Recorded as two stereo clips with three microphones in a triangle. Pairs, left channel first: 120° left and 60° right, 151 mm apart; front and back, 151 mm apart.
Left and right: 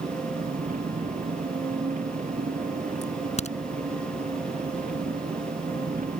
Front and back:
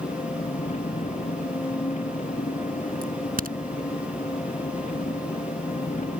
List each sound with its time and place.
0.0 s an engine running: 35° right
3.0 s a crack: 165° left